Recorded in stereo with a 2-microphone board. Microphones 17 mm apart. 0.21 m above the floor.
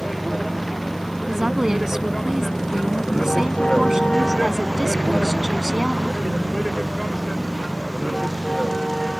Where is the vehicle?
Centre (ahead or behind); by 9.2 s 65° left (ahead or behind).